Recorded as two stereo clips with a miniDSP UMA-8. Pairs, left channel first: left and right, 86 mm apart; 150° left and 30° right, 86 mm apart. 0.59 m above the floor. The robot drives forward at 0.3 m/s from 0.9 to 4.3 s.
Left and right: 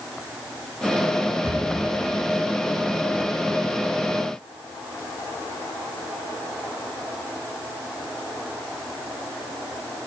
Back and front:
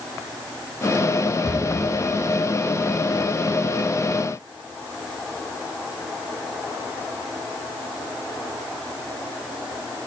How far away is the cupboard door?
About 1.1 m.